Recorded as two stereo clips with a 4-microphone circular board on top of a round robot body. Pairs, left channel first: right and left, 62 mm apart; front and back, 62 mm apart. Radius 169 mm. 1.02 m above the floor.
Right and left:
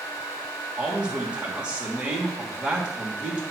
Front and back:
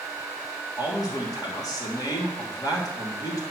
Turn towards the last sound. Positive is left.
turn(degrees=15)